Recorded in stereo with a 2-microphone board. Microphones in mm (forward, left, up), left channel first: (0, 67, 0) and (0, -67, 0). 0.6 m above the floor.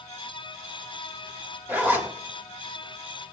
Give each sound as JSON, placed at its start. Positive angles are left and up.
{"t": 1.7, "sound": "a zipper", "side_deg": -15, "distance_m": 1.6}